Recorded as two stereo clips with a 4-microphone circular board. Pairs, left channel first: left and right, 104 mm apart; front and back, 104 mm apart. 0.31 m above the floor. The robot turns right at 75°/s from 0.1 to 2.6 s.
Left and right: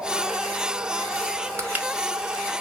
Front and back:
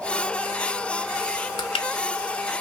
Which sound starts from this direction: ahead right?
Crushing, at 1.6 s.